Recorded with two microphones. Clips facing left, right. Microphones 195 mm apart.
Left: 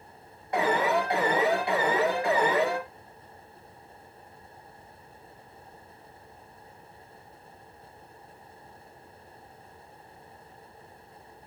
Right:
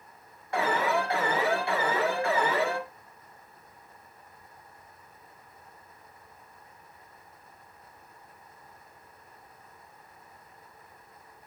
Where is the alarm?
20° left (ahead or behind), 3.5 m.